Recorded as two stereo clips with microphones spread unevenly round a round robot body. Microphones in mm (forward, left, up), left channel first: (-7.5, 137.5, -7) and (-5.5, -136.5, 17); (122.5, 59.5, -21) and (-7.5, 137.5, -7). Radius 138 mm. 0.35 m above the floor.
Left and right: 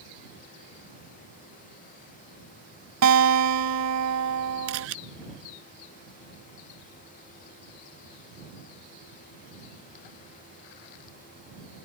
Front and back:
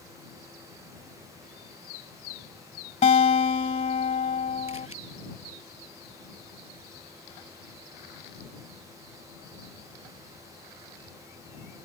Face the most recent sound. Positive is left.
turn(degrees=-130)